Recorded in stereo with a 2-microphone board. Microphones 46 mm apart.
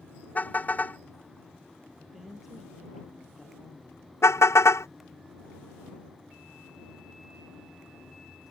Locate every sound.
0.3 s a car horn: 35° left (ahead or behind)
2.0 s a woman speaking: 5° right (ahead or behind)
4.2 s a car horn: 65° left (ahead or behind)